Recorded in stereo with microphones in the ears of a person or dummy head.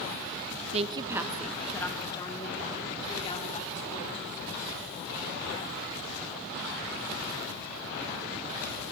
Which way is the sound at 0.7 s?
35° right (ahead or behind).